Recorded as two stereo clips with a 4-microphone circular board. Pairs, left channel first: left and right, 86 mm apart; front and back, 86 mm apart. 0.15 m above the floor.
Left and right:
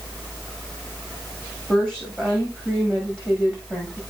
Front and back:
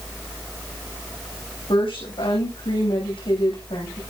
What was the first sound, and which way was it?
A woman speaking, 5° left.